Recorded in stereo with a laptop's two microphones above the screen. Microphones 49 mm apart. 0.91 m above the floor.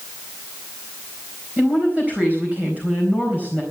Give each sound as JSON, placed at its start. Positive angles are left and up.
{"t": 1.6, "sound": "a woman speaking", "side_deg": -30, "distance_m": 4.0}